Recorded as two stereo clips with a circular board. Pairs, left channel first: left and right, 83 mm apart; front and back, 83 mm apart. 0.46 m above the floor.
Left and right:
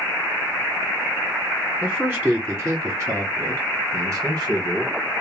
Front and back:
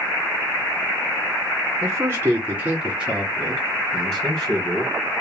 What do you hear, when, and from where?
1.8 s a man speaking: 160° right, 1.3 m; by 4.9 s 55° right, 1.6 m